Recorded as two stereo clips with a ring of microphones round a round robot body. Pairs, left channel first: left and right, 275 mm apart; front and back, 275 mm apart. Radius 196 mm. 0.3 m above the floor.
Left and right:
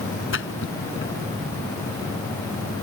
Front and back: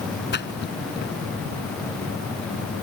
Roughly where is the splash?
Ahead left.